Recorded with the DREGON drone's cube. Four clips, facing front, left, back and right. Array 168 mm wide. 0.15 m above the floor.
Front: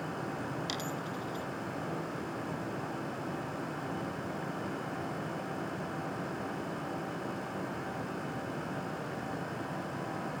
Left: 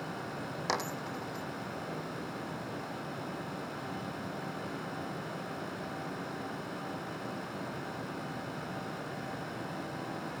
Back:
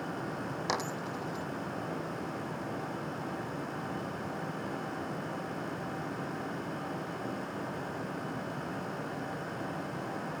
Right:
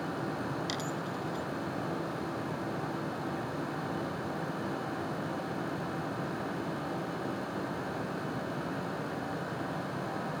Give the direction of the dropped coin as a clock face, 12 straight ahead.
8 o'clock.